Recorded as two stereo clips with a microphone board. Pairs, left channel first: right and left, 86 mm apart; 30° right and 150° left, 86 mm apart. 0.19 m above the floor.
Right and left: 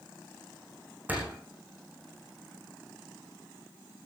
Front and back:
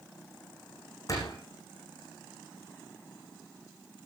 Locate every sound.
1.1 s a door slam: 20° left, 8 m